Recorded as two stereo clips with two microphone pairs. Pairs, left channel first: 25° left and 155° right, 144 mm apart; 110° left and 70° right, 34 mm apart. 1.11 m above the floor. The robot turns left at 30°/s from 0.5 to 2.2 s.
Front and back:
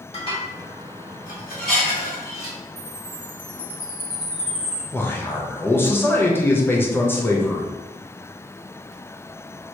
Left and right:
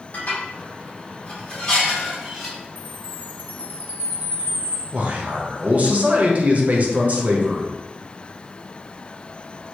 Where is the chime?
105° right, 1.6 m.